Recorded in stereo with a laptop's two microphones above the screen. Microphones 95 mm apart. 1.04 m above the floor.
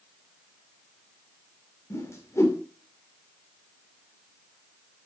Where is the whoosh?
30° left (ahead or behind), 2.5 m.